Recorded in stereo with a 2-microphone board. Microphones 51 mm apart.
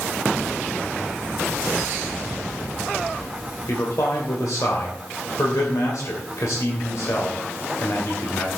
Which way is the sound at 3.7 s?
80° left.